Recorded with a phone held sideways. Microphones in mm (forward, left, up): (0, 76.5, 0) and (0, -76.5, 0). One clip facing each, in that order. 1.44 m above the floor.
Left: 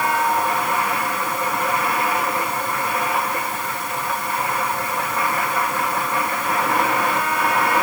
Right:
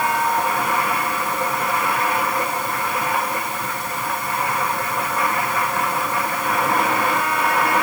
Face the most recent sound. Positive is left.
No sound to turn to.